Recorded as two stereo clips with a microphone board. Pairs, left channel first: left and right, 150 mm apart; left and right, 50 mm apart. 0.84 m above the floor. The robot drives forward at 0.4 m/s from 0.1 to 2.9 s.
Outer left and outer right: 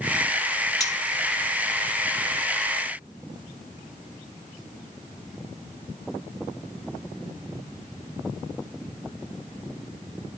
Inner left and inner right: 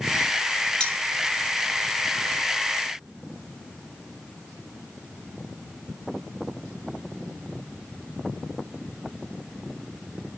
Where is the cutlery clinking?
25° left (ahead or behind), 3 m.